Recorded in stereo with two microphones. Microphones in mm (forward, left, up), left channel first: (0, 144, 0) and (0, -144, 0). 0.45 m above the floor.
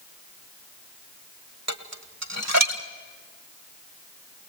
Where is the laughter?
I don't hear laughter.